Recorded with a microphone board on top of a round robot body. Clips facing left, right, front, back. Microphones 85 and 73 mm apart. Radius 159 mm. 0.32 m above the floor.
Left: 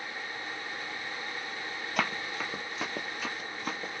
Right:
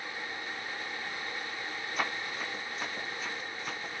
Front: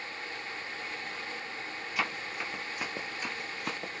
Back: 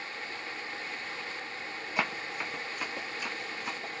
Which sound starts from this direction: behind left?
Running footsteps, at 2.0 s.